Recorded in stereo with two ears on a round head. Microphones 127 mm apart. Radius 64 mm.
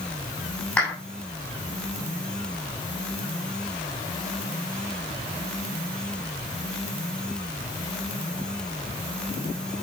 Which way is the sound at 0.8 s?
10° left (ahead or behind).